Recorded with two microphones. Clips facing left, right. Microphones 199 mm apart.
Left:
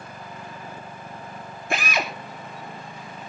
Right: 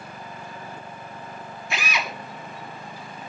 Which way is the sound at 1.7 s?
50° left (ahead or behind).